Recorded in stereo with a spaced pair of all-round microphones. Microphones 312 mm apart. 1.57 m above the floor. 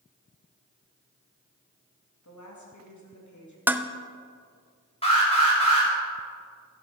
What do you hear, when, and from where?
2.2 s a woman speaking: 65° left (ahead or behind), 2.5 m
3.7 s dishes clattering: 5° right (ahead or behind), 0.5 m
5.0 s an alarm: 20° left (ahead or behind), 4.5 m